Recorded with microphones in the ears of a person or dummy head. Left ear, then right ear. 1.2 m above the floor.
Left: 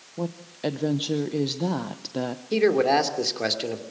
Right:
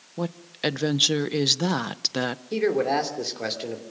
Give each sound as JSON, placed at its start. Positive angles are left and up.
{"t": 0.2, "sound": "a woman speaking", "side_deg": -50, "distance_m": 0.7}
{"t": 2.5, "sound": "a man speaking", "side_deg": 15, "distance_m": 2.5}